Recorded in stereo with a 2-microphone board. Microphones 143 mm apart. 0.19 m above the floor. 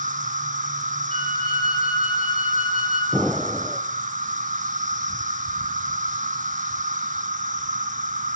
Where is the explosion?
5° right (ahead or behind), 2.0 m.